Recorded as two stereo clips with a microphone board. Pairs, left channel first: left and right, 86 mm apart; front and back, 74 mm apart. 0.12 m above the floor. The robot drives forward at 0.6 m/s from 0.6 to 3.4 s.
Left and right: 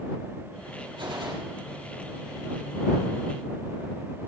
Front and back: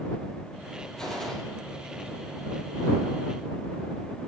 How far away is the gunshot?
About 3.5 m.